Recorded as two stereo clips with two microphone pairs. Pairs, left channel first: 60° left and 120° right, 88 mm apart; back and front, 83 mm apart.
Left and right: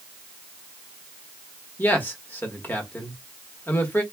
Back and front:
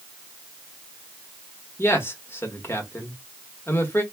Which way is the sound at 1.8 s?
125° left.